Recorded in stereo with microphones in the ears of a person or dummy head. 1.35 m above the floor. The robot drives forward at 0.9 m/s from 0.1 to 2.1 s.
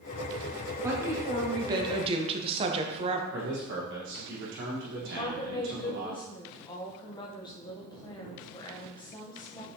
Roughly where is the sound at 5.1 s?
Left.